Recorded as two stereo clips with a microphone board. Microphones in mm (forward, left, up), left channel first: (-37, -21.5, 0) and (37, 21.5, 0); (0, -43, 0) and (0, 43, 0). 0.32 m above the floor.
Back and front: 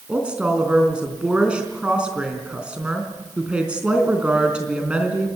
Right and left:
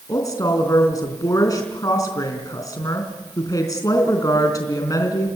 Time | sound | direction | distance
0.1 | a woman speaking | 45° right | 3.5 m